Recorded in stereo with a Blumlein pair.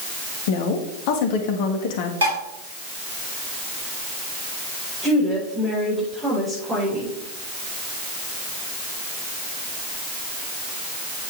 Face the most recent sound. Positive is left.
turn(degrees=-15)